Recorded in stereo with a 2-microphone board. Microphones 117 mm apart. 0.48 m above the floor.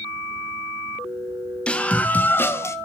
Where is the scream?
10° left (ahead or behind), 2.5 m; by 2.8 s 25° left (ahead or behind), 1.8 m.